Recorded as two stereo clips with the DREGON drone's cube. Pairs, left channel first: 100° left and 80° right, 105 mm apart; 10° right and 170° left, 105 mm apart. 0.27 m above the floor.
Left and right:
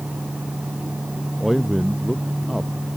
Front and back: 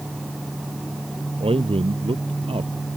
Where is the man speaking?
165° right.